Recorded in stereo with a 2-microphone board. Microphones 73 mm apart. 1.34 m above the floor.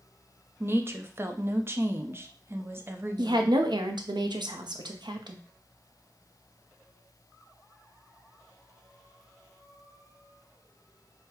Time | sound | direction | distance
0.6 | a woman speaking | 35° right (ahead or behind) | 0.6 m
3.2 | a woman speaking | 85° right | 0.7 m